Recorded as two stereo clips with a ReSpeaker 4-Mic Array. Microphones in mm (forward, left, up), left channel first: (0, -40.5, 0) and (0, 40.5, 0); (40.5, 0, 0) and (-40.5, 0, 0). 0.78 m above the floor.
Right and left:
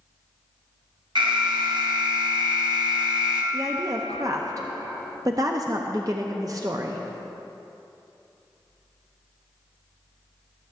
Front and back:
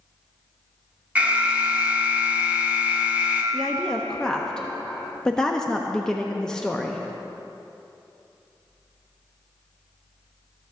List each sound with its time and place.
1.1 s an alarm: 110° left, 1.1 m
3.5 s a woman speaking: 80° left, 0.5 m